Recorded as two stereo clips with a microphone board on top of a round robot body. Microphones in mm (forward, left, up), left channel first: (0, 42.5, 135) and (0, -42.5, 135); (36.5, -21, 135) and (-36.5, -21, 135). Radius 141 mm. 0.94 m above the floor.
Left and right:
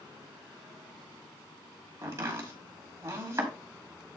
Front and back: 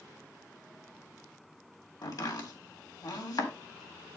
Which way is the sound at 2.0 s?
35° right.